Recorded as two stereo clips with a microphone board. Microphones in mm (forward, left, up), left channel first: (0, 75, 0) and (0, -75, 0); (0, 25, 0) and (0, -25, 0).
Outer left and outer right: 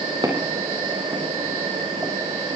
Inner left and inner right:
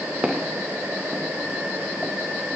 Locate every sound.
0.2 s footsteps: 25° right (ahead or behind), 4 m; by 2.1 s 10° right (ahead or behind), 3 m